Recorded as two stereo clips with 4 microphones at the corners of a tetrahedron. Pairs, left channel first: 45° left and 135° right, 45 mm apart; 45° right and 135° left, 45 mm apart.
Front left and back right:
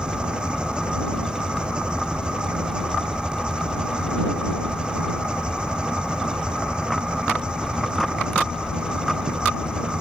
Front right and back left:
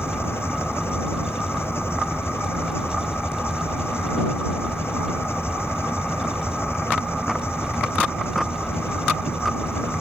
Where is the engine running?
65° right.